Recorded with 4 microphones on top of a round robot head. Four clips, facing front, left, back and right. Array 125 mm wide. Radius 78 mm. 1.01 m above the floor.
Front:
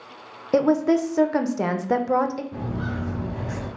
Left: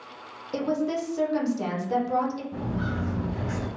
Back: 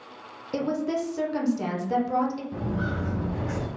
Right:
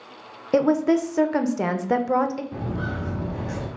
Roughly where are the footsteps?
Behind right.